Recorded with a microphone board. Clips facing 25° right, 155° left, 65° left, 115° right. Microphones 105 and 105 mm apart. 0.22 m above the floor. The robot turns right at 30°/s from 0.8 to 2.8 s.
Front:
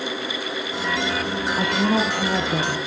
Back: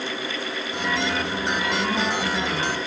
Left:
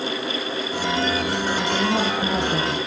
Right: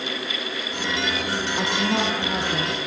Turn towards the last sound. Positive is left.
turn(degrees=5)